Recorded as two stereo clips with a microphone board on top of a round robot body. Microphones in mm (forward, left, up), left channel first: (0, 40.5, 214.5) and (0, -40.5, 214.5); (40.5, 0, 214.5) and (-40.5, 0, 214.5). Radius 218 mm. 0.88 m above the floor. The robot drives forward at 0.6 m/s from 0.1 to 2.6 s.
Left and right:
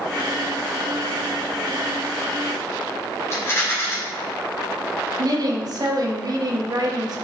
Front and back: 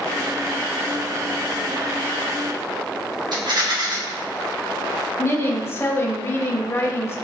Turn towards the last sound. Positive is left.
turn(degrees=-55)